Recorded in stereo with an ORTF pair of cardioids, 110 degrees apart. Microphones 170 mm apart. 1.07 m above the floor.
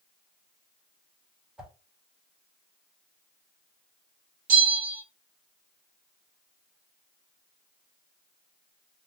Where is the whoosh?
5° right, 1.3 m.